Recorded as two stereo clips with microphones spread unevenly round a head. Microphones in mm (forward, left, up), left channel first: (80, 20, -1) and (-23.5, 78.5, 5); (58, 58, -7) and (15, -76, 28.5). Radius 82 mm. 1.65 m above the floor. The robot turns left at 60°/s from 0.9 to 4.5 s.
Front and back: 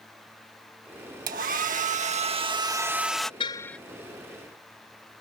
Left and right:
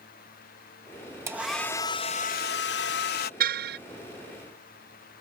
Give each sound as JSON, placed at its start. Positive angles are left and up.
{"t": 1.3, "sound": "a hair dryer", "azimuth_deg": 180}
{"t": 3.4, "sound": "a car horn", "azimuth_deg": -95}